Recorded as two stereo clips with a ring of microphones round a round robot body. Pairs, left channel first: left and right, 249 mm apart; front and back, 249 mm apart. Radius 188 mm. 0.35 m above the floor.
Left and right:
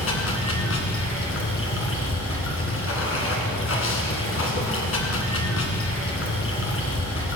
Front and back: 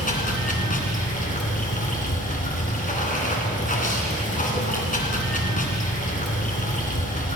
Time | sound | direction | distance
0.0 | running water | 60° left | 2 m